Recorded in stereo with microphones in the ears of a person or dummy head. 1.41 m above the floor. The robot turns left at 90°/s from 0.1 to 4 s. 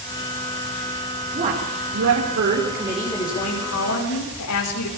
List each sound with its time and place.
1.3 s a woman speaking: 30° right, 5.5 m; by 4.9 s 90° left, 5.5 m